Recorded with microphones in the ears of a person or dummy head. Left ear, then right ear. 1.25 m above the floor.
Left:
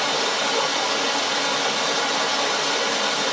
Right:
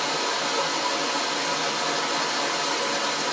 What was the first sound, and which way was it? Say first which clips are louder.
Running water: left 3 dB; 65° left (ahead or behind).